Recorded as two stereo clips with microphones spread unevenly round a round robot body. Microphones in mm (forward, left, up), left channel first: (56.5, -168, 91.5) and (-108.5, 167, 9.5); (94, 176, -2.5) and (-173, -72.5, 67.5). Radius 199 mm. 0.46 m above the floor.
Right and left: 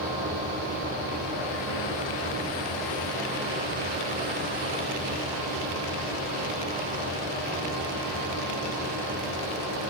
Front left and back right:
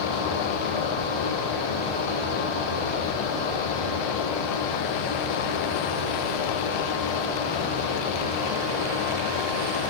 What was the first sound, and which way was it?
Only background noise.